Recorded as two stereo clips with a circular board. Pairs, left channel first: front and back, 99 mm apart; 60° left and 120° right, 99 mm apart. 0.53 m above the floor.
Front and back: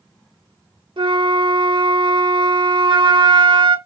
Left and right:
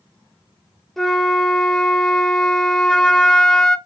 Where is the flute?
150° left, 0.7 m.